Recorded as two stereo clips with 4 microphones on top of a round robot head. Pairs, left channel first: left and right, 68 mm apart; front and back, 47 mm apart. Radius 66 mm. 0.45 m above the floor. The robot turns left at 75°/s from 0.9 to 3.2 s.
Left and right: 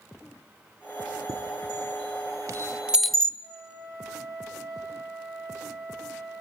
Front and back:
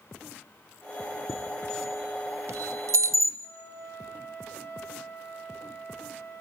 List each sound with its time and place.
1.3 s a chime: 45° right, 0.8 m; by 3.3 s 175° left, 0.8 m
3.4 s a flute: 5° right, 9 m